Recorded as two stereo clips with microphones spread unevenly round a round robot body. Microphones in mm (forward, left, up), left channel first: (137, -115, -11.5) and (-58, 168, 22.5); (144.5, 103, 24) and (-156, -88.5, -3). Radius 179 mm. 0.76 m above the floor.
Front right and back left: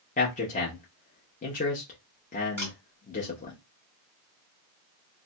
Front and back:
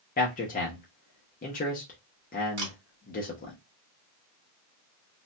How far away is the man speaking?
About 0.7 m.